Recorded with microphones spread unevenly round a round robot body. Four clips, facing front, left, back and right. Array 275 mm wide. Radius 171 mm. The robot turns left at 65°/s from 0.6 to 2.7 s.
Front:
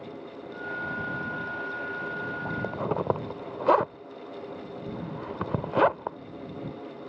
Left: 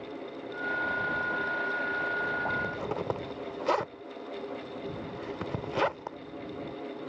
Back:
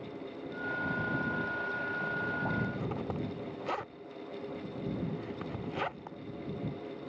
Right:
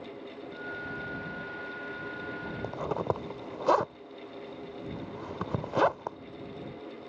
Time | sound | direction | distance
2.6 | a zipper | 5° right | ?